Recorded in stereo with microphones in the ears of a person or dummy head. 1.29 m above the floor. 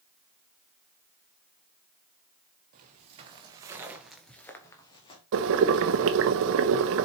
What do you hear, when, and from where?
2.7 s footsteps: 35° right (ahead or behind), 2.0 m; by 5.2 s 35° left (ahead or behind), 1.9 m
5.3 s boiling: 65° right (ahead or behind), 0.9 m